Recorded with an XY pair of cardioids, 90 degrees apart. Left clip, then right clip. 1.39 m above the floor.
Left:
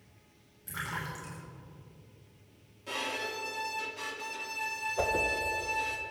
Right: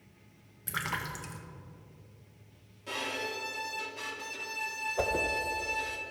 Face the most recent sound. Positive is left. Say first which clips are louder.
# left 1 dB
turn(degrees=-10)